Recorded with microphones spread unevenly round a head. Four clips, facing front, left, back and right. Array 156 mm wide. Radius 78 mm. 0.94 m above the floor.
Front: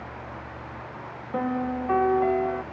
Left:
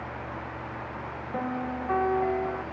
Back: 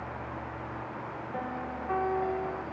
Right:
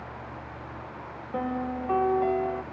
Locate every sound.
1.3 s a piano: 10° right